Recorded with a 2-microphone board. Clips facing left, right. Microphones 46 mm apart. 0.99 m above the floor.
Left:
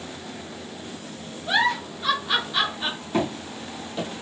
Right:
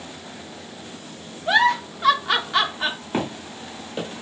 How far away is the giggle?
About 0.8 m.